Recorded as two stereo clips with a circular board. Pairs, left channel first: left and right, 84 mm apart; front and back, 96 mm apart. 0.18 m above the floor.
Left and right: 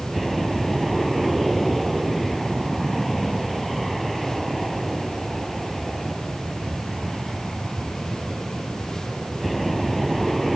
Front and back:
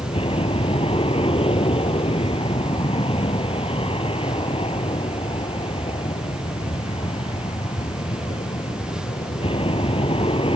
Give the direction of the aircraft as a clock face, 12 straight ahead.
12 o'clock.